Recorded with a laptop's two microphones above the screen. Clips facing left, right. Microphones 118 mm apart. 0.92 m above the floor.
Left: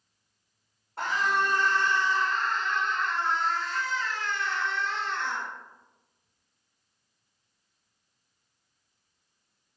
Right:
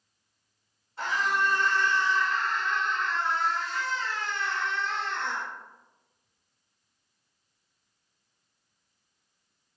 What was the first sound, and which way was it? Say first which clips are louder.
A scream: left 1 dB; 60° left (ahead or behind).